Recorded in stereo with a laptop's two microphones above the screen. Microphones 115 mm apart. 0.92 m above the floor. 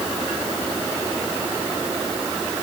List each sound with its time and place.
Only background noise.